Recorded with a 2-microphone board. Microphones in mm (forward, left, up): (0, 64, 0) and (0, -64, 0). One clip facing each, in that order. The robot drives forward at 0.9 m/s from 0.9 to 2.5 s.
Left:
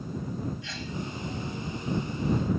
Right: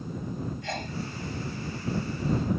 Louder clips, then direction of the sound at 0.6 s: Right 3 dB; 50° right (ahead or behind).